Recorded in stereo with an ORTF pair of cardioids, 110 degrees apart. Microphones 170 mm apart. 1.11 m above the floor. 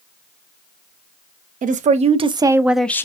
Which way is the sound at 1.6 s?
50° right.